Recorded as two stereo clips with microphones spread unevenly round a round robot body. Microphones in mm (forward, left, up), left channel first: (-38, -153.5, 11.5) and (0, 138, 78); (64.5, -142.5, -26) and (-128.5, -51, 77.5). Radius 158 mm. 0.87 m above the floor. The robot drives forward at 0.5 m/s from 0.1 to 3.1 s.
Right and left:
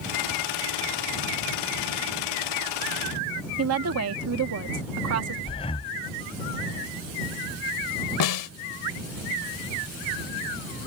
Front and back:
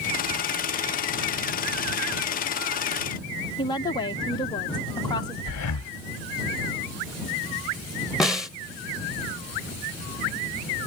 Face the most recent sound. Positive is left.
turn(degrees=-115)